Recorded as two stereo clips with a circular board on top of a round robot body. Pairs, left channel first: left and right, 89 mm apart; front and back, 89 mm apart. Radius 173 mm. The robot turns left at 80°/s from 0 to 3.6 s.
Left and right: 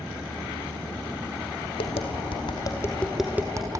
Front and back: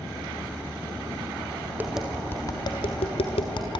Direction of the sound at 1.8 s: 110° left.